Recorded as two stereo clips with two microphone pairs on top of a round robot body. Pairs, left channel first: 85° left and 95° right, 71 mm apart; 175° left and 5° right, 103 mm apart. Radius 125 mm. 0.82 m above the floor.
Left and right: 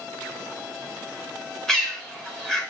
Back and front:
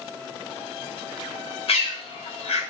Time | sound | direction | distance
1.7 | a bird | 165° left | 0.8 m